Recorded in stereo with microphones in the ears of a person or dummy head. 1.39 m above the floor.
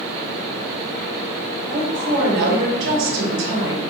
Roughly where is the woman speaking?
Right.